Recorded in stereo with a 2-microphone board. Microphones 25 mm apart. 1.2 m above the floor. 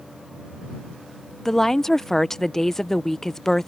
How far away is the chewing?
I don't hear chewing.